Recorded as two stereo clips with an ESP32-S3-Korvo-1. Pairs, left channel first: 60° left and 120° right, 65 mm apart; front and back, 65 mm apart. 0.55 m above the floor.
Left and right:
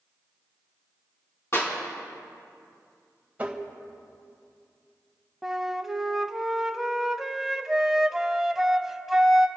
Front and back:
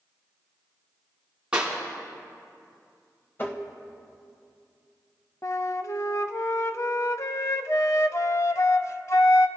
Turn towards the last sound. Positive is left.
turn(degrees=-35)